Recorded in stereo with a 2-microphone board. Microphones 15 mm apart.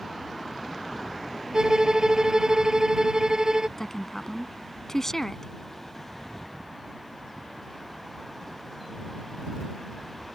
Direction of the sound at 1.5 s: 65° right (ahead or behind).